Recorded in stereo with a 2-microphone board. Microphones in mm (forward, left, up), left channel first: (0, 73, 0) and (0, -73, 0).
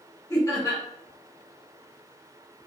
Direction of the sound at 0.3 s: 20° left (ahead or behind).